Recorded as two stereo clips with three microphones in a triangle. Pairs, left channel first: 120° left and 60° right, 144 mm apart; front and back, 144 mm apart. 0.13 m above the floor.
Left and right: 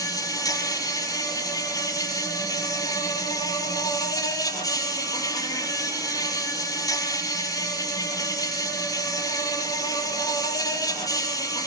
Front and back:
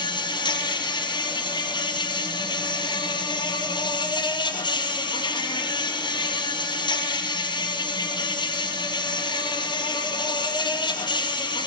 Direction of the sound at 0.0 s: 55° left.